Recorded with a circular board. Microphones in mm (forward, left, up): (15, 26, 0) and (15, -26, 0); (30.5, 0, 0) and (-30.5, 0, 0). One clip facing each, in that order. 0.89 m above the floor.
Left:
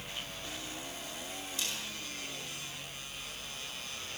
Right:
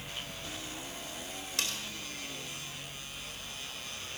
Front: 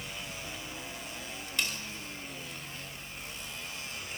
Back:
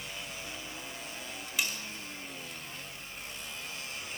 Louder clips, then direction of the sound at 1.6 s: Right 3 dB, even; 95° right.